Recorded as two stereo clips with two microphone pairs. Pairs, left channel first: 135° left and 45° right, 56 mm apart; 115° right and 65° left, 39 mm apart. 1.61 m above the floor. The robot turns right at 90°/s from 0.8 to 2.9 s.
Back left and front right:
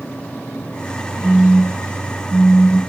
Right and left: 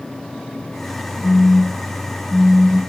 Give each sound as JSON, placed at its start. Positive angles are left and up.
{"t": 1.2, "sound": "a phone buzzing", "azimuth_deg": -100, "distance_m": 1.2}